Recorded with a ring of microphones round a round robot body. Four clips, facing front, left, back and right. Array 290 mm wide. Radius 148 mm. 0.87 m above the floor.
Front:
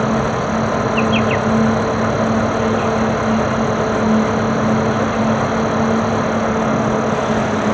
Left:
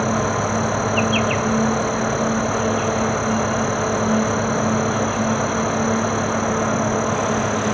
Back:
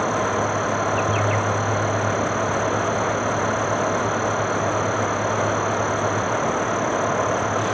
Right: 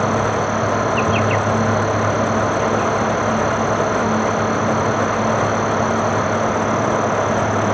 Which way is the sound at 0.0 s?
10° left.